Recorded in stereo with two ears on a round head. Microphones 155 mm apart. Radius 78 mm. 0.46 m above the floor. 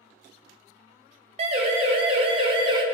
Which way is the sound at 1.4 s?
40° right (ahead or behind).